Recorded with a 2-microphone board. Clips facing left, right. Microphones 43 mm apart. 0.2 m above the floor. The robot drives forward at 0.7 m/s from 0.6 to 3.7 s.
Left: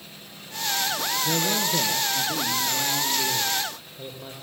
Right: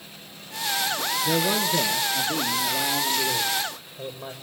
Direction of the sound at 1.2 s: 20° right (ahead or behind).